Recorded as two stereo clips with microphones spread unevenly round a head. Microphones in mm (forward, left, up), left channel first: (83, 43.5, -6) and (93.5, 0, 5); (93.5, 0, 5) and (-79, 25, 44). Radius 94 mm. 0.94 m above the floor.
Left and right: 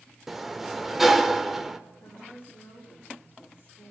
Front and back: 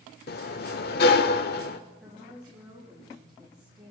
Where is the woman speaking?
105° left, 5 m.